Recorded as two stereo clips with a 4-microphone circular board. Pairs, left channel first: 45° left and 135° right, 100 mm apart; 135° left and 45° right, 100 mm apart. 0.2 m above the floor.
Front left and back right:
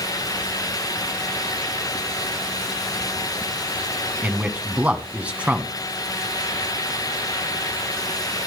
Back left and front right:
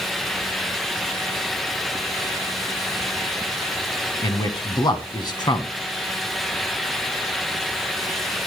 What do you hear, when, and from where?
4.2 s a man speaking: 155° left, 1.3 m